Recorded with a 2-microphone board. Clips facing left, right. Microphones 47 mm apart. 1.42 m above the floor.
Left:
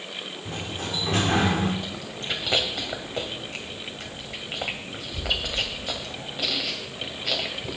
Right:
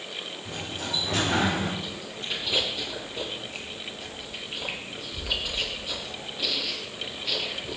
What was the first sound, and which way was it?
A sliding door, 40° left (ahead or behind).